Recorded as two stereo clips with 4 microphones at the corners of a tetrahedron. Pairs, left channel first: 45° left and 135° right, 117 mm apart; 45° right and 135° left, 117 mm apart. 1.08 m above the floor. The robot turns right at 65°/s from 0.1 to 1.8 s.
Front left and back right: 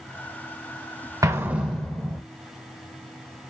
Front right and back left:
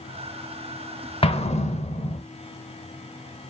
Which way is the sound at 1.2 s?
75° right.